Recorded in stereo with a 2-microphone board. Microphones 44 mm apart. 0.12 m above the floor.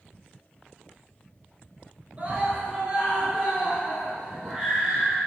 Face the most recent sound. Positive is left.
turn(degrees=-10)  # may be behind; listen again after turning